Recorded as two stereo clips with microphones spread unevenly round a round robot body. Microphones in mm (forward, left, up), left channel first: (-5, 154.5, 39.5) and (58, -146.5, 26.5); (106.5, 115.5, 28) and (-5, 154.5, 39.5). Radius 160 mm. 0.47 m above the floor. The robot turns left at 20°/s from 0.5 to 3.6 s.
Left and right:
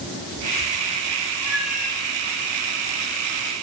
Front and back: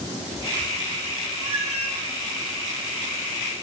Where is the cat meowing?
135° left, 1.9 m; by 2.0 s 125° left, 1.9 m.